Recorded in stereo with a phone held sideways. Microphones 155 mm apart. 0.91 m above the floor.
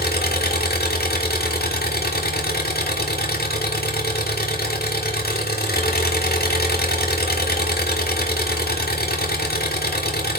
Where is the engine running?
70° left (ahead or behind), 1.6 m.